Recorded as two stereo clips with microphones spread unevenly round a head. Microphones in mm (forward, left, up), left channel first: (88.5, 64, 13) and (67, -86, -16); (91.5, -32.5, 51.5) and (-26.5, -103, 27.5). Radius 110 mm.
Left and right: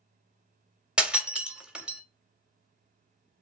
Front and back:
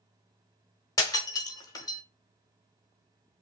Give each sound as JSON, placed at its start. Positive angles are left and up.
{"t": 1.0, "sound": "breaking glass", "azimuth_deg": -5, "distance_m": 0.9}